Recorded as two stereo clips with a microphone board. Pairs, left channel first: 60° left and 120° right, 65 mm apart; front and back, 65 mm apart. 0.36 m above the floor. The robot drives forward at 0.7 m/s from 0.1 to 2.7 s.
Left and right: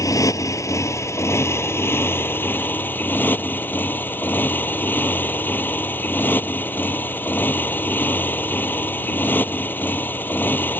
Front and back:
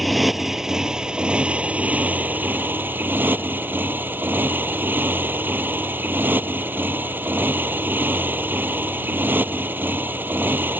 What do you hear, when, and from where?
0.0 s a motorcycle: 90° left; by 10.8 s 120° left